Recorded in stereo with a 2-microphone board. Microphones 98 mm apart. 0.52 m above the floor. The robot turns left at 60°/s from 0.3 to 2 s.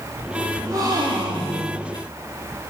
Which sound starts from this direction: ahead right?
A gasp, at 0.6 s.